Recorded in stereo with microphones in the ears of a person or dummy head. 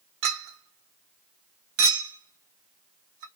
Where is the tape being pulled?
No tape being pulled in this recording.